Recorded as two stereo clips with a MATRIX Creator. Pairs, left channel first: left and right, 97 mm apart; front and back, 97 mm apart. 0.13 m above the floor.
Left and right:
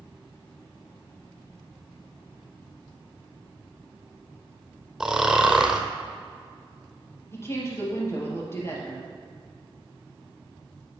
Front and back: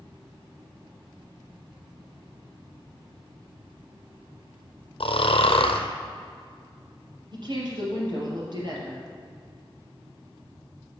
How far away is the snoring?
About 0.9 m.